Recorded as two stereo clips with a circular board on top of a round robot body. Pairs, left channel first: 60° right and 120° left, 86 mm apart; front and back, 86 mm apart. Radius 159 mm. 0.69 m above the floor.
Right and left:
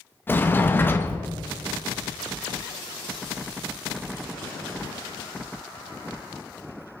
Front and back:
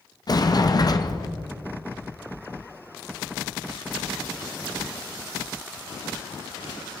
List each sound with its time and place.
0.3 s a sliding door: straight ahead, 1.3 m